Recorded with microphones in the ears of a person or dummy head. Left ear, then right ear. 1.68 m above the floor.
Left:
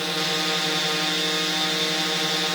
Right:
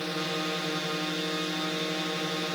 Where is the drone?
40° left (ahead or behind).